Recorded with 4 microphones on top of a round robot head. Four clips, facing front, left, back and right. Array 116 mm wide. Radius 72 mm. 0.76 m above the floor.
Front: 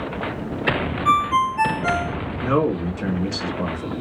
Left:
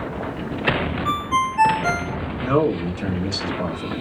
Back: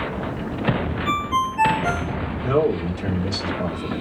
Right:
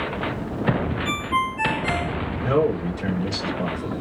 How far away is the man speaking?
About 2.5 m.